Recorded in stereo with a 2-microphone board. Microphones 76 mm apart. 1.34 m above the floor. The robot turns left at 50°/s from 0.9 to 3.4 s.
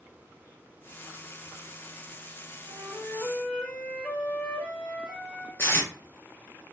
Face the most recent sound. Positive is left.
turn(degrees=30)  # may be behind; listen again after turning